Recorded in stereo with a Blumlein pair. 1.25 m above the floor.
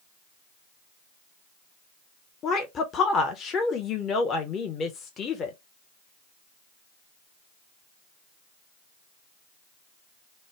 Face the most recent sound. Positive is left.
turn(degrees=25)